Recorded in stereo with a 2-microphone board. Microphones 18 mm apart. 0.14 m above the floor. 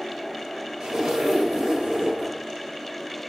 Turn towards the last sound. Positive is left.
turn(degrees=-55)  # may be behind; listen again after turning